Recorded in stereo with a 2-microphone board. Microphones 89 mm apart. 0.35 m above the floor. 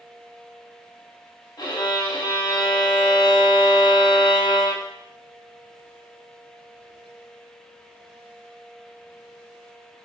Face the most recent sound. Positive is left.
turn(degrees=45)  # may be behind; listen again after turning